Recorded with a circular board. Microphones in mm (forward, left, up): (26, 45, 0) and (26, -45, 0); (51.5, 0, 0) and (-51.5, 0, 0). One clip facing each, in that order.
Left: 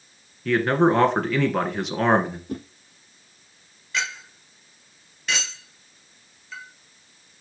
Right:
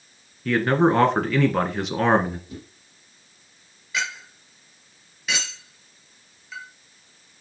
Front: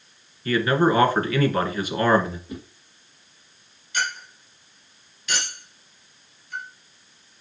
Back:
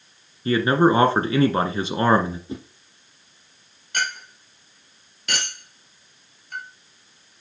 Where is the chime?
No chime in this recording.